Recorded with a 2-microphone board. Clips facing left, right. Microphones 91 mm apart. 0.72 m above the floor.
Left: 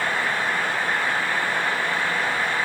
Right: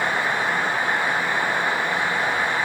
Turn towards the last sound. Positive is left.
No sound to turn to.